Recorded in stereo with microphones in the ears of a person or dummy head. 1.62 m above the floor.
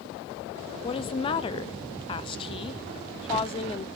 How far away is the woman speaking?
About 0.7 m.